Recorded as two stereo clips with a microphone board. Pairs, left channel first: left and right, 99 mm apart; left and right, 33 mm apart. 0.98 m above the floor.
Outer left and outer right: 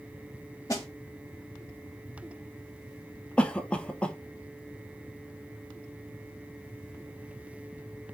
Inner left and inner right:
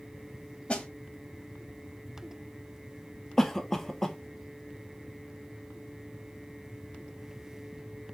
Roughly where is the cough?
Centre.